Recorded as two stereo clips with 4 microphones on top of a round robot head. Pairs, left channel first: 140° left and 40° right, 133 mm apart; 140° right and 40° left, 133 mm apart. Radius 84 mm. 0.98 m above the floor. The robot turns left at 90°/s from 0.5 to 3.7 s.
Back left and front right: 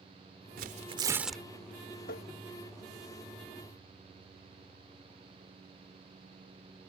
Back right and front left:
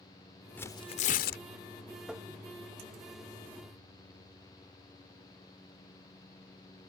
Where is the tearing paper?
60° right; by 1.4 s 140° right.